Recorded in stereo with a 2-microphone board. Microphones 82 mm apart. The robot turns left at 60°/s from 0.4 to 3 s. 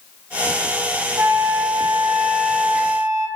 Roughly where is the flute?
Ahead.